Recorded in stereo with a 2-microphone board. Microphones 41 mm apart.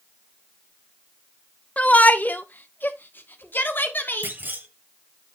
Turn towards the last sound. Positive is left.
turn(degrees=-55)  # may be behind; listen again after turning